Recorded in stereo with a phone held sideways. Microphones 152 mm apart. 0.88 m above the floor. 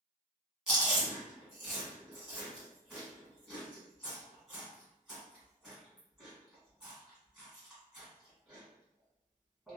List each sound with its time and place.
0.7 s chewing: centre (ahead or behind), 1.3 m